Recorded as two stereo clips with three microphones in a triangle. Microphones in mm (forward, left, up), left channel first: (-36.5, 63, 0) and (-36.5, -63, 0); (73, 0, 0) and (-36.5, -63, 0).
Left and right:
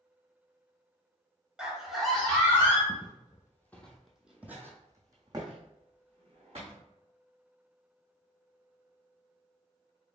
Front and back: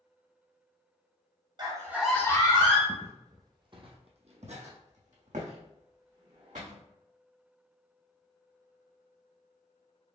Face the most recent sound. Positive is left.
turn(degrees=-130)